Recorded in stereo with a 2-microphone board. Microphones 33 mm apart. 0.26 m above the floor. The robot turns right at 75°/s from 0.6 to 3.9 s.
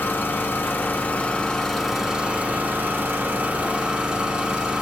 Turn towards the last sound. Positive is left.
turn(degrees=-25)